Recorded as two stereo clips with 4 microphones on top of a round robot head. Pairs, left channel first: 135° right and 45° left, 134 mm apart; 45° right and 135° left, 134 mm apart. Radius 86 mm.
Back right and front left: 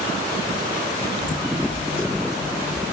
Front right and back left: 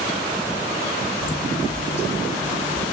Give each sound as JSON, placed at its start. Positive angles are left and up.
{"t": 1.2, "sound": "footsteps", "azimuth_deg": -60, "distance_m": 0.7}